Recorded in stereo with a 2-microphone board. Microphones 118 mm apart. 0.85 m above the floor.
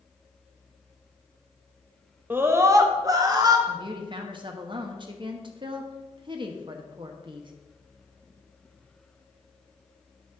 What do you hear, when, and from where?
2.3 s a scream: 15° right (ahead or behind), 0.8 m; by 3.6 s 35° right (ahead or behind), 1.6 m
3.7 s a woman speaking: 45° right (ahead or behind), 1.1 m